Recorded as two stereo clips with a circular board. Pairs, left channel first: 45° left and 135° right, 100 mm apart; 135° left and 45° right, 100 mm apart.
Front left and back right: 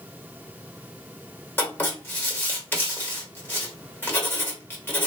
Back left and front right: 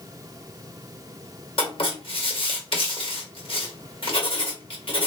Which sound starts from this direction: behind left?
Writing, at 1.6 s.